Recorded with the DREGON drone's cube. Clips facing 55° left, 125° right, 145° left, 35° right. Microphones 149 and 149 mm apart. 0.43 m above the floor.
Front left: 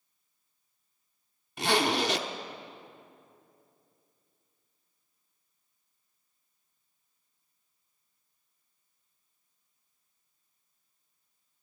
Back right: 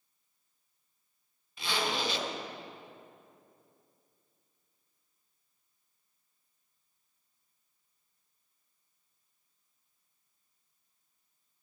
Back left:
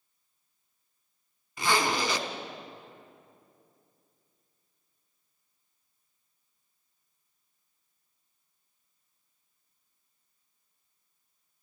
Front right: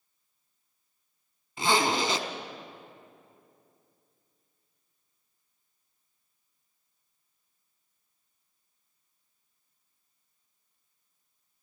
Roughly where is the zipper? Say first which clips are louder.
Front left 7 dB, front right 2 dB; ahead left.